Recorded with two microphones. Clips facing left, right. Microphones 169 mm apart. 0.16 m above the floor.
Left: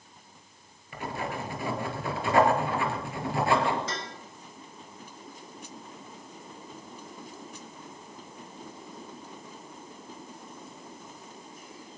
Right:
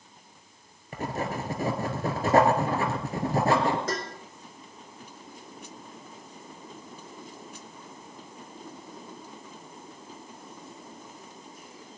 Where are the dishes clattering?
55° right (ahead or behind), 1.3 m.